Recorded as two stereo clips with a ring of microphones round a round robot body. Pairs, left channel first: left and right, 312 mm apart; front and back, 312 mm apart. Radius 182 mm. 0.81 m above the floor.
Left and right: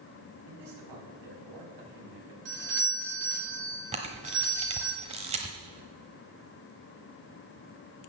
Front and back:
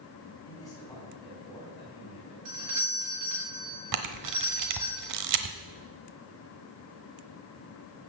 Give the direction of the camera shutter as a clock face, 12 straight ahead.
5 o'clock.